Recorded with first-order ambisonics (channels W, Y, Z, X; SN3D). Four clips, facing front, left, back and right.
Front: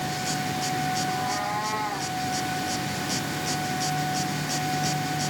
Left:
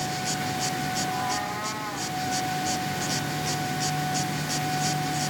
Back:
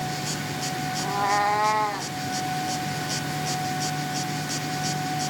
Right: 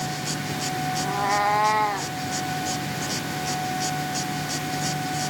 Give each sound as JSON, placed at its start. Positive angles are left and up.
{"t": 1.0, "sound": "a cat meowing", "azimuth_deg": -150, "distance_m": 0.6}